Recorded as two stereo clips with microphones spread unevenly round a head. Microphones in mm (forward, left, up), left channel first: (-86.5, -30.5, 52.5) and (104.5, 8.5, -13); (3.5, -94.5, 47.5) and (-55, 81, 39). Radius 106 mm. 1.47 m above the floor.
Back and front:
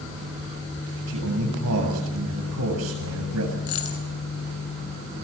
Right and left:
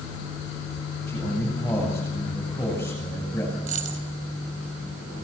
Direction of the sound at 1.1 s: 5° left.